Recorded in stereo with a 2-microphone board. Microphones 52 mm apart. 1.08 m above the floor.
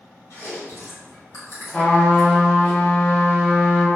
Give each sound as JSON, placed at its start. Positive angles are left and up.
{"t": 0.3, "sound": "chewing", "side_deg": 65, "distance_m": 1.5}
{"t": 1.7, "sound": "a trumpet", "side_deg": 25, "distance_m": 1.0}